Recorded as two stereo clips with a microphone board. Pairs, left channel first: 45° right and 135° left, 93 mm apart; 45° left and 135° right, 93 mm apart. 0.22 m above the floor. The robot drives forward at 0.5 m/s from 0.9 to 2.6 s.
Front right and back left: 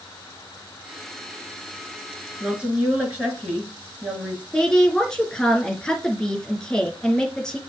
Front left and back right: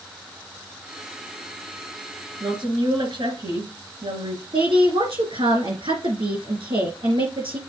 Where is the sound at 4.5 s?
130° right, 3.5 m.